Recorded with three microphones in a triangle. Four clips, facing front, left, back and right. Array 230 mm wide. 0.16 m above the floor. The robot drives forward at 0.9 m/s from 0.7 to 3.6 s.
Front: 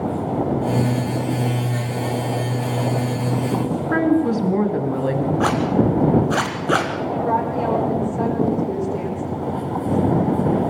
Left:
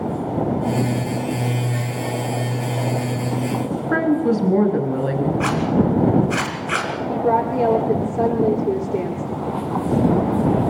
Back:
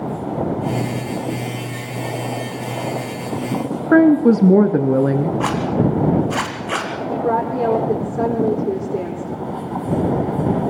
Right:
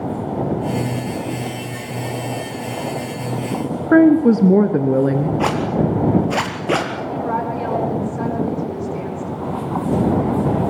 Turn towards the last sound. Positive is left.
turn(degrees=140)